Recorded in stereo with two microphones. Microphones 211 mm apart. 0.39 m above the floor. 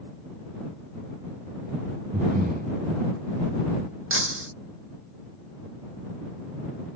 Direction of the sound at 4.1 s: 80° right.